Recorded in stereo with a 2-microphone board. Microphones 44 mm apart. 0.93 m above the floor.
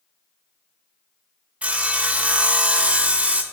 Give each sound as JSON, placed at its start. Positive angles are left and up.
{"t": 1.6, "sound": "sawing", "side_deg": -30, "distance_m": 0.5}